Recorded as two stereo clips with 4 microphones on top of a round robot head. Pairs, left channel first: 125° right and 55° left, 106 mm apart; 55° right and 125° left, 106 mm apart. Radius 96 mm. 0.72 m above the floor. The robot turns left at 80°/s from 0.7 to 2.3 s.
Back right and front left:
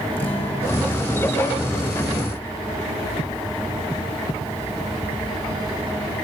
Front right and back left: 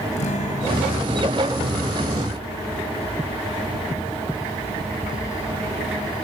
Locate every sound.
0.2 s a guitar: 55° right, 4.5 m; by 2.2 s 175° right, 4.5 m